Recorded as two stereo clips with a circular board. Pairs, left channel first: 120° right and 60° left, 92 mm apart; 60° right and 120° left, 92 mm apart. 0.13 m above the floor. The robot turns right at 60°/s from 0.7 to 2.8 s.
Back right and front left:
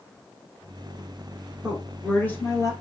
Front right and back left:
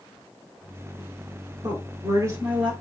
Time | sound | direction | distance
1.6 | a woman speaking | 135° left | 1.7 m